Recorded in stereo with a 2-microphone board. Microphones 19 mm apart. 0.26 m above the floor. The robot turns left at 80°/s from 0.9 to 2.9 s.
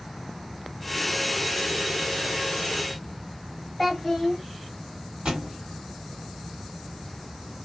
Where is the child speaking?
Centre (ahead or behind), 1.1 m.